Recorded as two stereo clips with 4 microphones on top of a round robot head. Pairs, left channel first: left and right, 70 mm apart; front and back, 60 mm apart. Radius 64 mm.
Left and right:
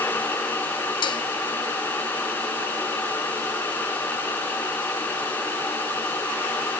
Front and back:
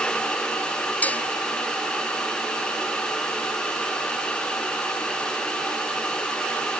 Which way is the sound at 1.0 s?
65° left.